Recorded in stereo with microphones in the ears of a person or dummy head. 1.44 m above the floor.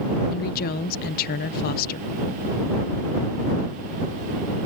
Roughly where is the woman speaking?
Left.